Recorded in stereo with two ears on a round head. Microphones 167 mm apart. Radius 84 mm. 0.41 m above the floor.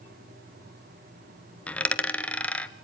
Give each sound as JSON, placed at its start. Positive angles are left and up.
{"t": 1.7, "sound": "a dropped coin", "side_deg": 10, "distance_m": 0.8}